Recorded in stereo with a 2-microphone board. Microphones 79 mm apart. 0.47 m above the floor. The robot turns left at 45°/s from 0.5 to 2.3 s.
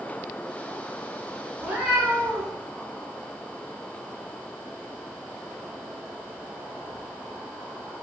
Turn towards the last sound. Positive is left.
turn(degrees=165)